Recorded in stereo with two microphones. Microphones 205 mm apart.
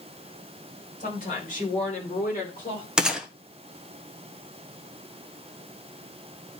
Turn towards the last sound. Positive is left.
turn(degrees=-5)  # may be behind; listen again after turning